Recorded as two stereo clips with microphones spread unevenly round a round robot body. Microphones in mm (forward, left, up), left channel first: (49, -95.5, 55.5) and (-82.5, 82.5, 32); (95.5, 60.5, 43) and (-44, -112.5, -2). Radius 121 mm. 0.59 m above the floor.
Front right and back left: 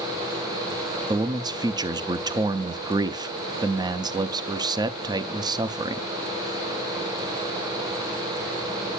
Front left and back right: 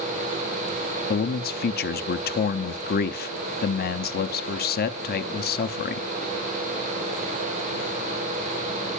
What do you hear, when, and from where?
1.1 s a man speaking: 80° left, 0.6 m